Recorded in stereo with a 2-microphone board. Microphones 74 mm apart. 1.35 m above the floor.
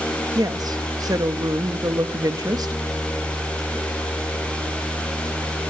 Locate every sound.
0.3 s a woman speaking: 55° right (ahead or behind), 1.5 m